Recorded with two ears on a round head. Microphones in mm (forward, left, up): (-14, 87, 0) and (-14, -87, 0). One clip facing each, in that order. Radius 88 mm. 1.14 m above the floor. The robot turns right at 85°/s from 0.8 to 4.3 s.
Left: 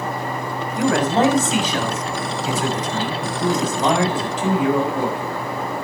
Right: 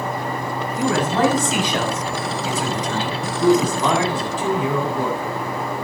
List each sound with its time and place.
0.8 s a man speaking: 120° left, 6.5 m; by 5.2 s 60° left, 6.5 m